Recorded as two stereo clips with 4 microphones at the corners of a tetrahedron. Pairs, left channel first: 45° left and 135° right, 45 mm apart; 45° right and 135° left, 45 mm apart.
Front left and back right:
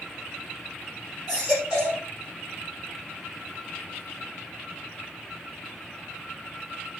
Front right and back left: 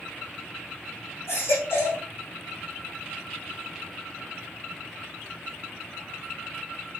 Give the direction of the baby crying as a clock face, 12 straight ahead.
2 o'clock.